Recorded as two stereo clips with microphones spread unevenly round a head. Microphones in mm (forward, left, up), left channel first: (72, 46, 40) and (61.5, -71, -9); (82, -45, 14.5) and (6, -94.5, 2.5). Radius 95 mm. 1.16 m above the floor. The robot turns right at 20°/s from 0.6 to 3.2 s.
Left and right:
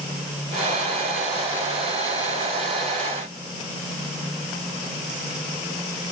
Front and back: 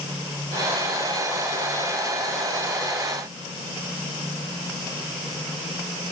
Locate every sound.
Only background noise.